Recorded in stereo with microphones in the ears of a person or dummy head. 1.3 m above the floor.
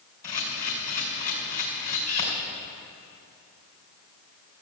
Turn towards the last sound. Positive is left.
turn(degrees=35)  # may be behind; listen again after turning